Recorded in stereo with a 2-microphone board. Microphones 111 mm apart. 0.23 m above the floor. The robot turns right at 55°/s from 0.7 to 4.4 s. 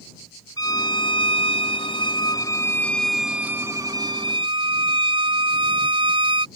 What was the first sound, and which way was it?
A violin, 45° left.